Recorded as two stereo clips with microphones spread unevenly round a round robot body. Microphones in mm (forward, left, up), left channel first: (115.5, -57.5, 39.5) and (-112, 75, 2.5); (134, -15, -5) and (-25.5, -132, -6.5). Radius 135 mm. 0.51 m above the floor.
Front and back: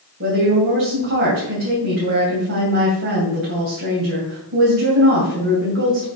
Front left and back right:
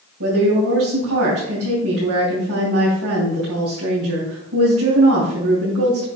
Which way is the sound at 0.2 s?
165° right.